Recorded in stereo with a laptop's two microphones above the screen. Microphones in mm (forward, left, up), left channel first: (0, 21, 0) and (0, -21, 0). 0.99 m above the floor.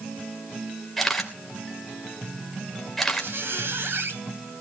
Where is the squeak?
70° right (ahead or behind), 3 m.